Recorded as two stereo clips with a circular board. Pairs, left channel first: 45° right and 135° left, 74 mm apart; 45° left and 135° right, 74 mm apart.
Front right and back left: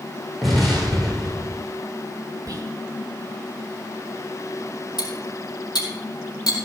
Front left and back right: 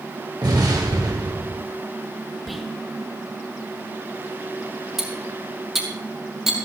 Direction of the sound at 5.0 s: 50° right.